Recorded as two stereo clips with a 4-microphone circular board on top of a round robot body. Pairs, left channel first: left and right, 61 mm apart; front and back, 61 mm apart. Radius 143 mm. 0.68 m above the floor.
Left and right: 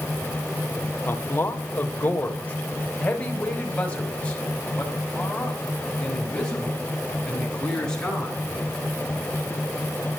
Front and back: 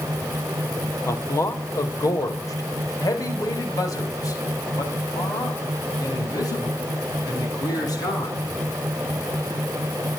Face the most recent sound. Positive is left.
turn(degrees=15)